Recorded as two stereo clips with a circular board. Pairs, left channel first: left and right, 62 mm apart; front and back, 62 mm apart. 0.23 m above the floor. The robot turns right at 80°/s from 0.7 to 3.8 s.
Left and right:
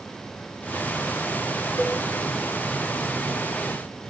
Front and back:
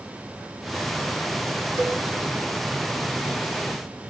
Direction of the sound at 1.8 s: 130° left.